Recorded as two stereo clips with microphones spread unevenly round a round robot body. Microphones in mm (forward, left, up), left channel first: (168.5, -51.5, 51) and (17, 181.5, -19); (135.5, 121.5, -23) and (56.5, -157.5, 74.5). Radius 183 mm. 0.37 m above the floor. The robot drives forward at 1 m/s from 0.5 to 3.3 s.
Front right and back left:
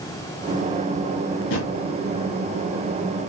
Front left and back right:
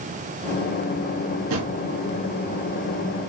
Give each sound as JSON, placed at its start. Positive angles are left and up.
{"t": 1.5, "sound": "a drawer", "azimuth_deg": -95, "distance_m": 3.0}